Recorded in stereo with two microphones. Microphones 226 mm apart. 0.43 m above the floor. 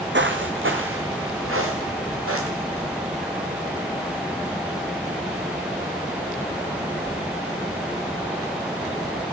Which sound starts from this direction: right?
Footsteps, at 0.1 s.